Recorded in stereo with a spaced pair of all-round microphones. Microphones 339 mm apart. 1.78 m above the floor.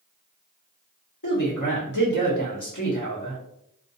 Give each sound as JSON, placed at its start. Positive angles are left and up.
{"t": 1.2, "sound": "a man speaking", "side_deg": 60, "distance_m": 1.0}